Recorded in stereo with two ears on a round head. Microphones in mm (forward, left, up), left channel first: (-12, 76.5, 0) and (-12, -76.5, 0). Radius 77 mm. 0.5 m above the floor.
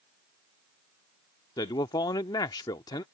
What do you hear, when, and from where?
1.6 s a man speaking: 25° left (ahead or behind)